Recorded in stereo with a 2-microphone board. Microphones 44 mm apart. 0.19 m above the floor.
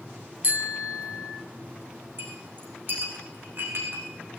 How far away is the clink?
About 8 m.